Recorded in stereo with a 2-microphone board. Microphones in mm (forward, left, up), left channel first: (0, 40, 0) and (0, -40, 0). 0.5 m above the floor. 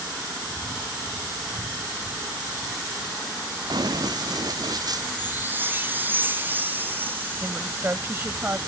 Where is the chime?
25° right (ahead or behind).